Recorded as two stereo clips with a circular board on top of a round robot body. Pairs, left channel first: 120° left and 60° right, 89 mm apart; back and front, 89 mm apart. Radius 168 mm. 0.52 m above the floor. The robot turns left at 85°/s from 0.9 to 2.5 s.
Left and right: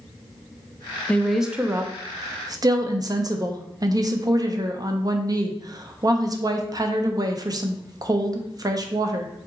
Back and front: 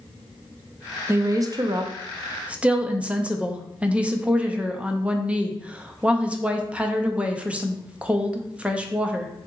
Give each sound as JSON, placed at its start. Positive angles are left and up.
{"t": 1.1, "sound": "a woman speaking", "azimuth_deg": 50, "distance_m": 0.8}